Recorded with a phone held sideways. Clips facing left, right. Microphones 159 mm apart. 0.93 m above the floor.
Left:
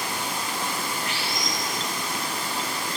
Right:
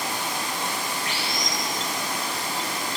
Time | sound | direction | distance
0.0 | running water | 85° right | 5.5 m